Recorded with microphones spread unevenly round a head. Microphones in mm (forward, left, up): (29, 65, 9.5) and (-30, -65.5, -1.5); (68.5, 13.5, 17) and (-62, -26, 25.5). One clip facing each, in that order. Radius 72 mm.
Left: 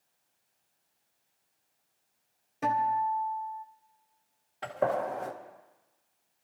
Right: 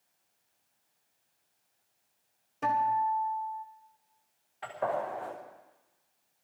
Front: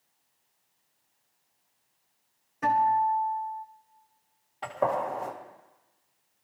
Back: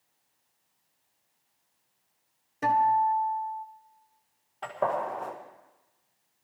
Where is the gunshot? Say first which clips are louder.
Left 3 dB, front 1 dB; 105° left, 2 m.